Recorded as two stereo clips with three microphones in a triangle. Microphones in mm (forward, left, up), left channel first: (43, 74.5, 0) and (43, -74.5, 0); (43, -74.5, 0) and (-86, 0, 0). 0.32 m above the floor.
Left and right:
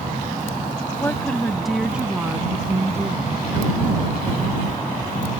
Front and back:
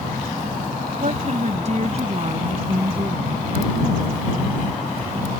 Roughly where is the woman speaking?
Behind.